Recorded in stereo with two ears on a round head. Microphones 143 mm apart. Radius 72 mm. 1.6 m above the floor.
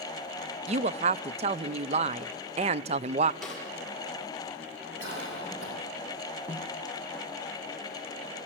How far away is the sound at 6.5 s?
About 1.7 m.